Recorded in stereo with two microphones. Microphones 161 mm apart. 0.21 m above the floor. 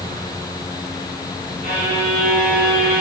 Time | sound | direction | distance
1.6 | a violin | 65° right (ahead or behind) | 4.5 m